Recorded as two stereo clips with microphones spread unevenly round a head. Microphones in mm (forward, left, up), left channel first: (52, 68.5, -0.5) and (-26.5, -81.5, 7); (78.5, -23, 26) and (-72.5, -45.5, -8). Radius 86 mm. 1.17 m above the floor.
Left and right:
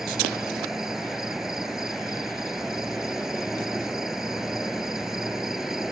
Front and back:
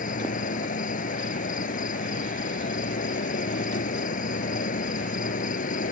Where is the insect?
30° right.